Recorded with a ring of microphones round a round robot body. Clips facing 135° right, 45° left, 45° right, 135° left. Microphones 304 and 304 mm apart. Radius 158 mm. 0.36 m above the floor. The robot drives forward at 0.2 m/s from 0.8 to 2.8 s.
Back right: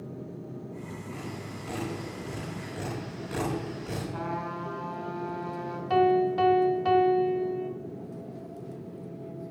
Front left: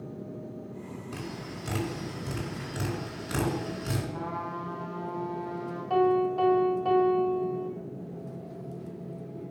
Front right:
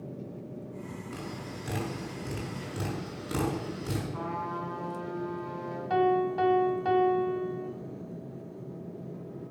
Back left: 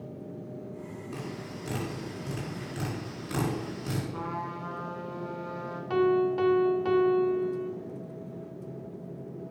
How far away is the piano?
About 1.3 m.